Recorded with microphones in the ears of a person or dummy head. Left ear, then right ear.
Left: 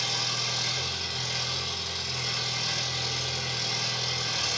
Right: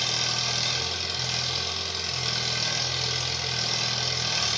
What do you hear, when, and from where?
0.0 s an engine running: 60° right (ahead or behind), 0.8 m